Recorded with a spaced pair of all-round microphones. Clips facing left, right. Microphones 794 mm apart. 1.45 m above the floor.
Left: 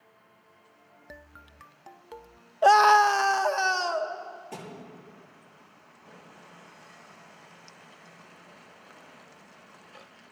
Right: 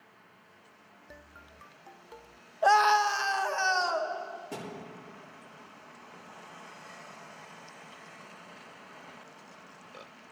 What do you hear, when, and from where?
2.6 s a scream: 65° left (ahead or behind), 0.6 m; by 4.1 s 55° left (ahead or behind), 1.2 m
4.5 s a thud: 65° right (ahead or behind), 7.5 m